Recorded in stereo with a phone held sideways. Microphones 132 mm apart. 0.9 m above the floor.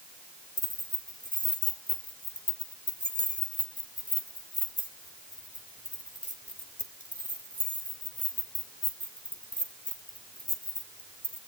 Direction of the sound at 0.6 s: 90° left.